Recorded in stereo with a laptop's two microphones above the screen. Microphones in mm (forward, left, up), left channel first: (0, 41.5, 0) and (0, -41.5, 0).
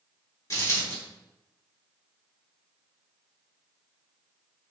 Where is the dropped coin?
45° left (ahead or behind), 1.5 m.